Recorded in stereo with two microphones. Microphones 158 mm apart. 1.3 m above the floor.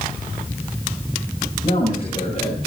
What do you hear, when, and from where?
1.6 s a man speaking: 45° left (ahead or behind), 7.5 m